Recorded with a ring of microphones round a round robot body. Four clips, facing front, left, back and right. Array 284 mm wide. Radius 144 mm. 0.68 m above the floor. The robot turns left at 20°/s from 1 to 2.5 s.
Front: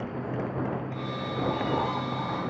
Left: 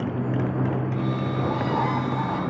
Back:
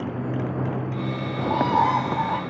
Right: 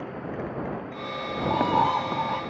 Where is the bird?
150° right; by 2.4 s 170° right.